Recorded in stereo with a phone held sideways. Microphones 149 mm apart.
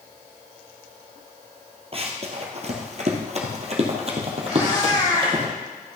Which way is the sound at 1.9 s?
40° right (ahead or behind).